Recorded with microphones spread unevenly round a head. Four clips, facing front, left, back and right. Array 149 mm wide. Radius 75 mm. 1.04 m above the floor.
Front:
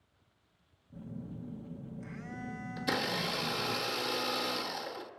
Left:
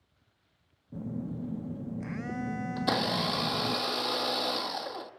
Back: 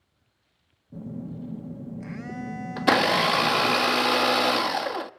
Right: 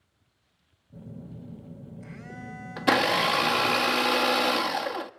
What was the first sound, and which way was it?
A phone buzzing, 140° left.